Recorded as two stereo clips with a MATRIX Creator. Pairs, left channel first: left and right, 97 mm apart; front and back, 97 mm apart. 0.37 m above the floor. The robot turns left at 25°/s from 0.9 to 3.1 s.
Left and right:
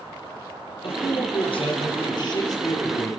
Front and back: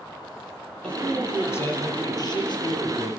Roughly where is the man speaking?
Left.